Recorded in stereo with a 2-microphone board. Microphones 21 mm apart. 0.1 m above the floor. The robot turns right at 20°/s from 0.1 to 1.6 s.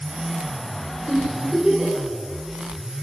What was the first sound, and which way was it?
A giggle, 15° left (ahead or behind).